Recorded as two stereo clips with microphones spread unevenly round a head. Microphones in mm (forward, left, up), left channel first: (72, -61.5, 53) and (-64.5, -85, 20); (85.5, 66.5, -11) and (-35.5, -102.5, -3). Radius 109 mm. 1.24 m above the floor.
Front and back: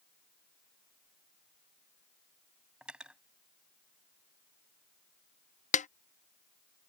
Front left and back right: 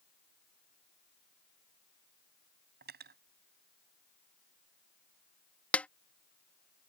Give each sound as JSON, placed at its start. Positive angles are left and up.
{"t": 2.8, "sound": "cutlery clinking", "azimuth_deg": -85}
{"t": 5.7, "sound": "a snare drum", "azimuth_deg": -30}